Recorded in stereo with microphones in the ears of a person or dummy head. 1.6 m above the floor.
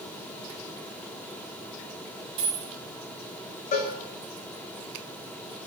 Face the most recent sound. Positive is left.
turn(degrees=40)  # may be behind; listen again after turning